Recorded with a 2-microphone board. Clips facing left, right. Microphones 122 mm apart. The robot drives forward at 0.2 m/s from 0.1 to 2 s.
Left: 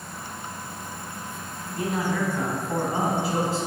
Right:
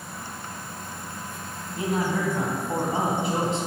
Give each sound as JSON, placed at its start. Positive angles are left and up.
{"t": 1.8, "sound": "a man speaking", "side_deg": -25, "distance_m": 1.6}